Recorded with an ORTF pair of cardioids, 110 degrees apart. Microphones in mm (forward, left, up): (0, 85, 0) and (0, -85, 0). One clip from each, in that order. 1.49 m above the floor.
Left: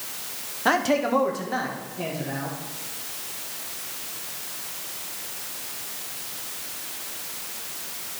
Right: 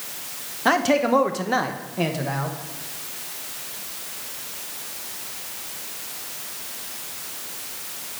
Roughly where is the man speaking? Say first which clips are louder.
Right 3 dB; ahead.